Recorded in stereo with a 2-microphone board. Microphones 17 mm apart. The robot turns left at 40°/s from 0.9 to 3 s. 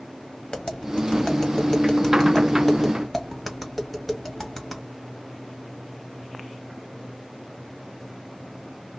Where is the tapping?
60° left (ahead or behind), 1.4 m; by 4.8 s centre (ahead or behind), 1.4 m.